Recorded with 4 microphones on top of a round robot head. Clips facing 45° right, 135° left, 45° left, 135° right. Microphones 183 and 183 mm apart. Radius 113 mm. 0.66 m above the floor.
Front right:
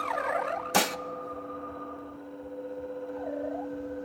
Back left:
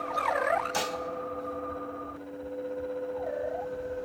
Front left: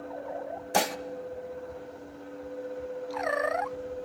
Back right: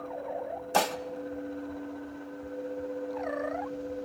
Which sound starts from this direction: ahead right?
Dishes clattering, at 0.7 s.